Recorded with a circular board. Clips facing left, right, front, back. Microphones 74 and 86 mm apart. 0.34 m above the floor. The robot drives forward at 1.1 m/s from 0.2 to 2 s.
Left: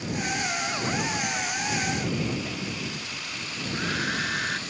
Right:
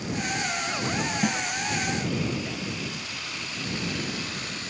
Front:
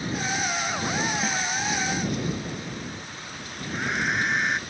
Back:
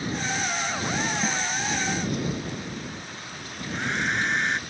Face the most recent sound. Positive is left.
turn(degrees=85)